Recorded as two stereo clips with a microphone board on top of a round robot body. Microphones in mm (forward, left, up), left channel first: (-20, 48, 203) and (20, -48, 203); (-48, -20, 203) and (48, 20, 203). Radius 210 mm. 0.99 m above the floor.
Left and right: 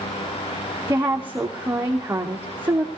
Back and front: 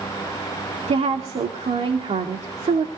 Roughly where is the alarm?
I don't hear an alarm.